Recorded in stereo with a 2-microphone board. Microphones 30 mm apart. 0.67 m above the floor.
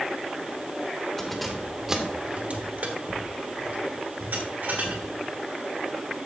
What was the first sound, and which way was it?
Keys jangling, 15° left (ahead or behind).